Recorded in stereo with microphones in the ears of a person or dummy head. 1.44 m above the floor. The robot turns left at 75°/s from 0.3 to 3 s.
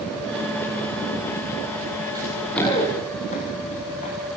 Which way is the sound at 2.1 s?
20° right (ahead or behind).